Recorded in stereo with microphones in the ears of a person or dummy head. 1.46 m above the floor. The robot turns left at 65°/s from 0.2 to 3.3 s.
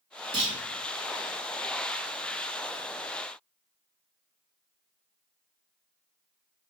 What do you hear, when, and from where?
0.3 s a clunk: 25° right (ahead or behind), 1.6 m; by 0.6 s 35° right (ahead or behind), 1.6 m